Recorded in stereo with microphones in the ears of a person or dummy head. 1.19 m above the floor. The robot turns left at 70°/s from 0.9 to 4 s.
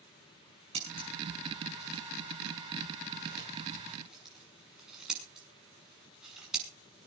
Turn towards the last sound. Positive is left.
turn(degrees=-5)  # may be behind; listen again after turning